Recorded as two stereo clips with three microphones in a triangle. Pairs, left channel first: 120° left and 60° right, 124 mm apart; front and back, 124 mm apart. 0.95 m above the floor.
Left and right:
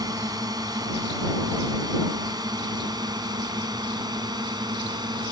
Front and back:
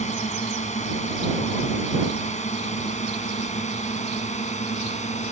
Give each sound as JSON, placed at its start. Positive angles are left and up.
{"t": 0.0, "sound": "a drone", "azimuth_deg": -5}